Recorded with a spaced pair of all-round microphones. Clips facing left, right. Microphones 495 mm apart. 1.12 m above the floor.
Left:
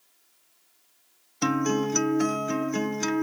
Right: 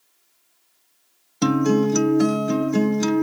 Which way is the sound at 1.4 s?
60° right (ahead or behind).